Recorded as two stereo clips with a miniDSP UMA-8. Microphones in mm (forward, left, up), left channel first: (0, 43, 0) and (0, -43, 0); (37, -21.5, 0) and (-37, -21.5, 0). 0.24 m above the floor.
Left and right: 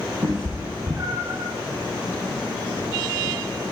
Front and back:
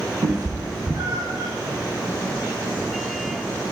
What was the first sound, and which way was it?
A cat meowing, 145° right.